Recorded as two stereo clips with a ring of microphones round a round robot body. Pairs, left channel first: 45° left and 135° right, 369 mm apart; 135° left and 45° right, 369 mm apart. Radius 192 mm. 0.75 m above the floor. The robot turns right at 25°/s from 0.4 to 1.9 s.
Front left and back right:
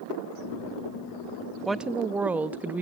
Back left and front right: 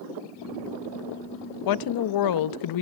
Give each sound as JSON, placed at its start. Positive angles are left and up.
{"t": 1.6, "sound": "a woman speaking", "azimuth_deg": 135, "distance_m": 0.6}